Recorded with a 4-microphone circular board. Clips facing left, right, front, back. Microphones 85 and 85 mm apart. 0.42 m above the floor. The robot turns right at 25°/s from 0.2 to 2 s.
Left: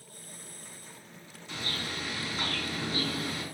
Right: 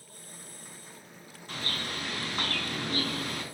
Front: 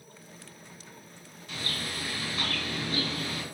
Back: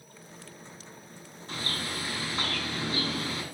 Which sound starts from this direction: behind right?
A bird, at 1.5 s.